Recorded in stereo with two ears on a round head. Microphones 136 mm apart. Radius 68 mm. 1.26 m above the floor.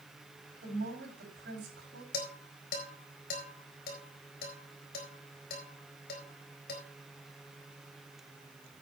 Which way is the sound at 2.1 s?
70° left (ahead or behind).